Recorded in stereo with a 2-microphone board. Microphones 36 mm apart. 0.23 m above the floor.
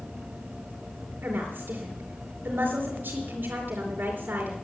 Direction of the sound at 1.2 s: 60° right (ahead or behind).